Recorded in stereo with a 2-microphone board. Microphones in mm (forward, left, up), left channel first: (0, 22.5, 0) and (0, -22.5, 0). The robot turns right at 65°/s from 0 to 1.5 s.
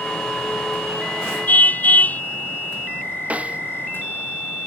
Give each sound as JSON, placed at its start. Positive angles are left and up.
{"t": 1.5, "sound": "a car horn", "side_deg": 40}
{"t": 3.3, "sound": "a snare drum", "side_deg": -30}